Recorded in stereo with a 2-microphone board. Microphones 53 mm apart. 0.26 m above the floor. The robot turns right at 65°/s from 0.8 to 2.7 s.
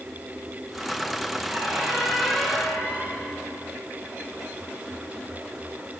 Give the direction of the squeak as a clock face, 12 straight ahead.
1 o'clock.